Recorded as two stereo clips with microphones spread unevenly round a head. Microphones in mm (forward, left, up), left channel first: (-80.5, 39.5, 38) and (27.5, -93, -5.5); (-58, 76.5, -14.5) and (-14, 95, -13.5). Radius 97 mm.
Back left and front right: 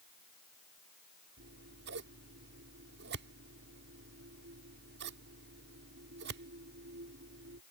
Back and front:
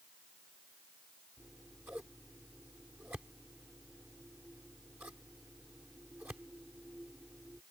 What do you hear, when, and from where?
1.4 s scissors: 55° right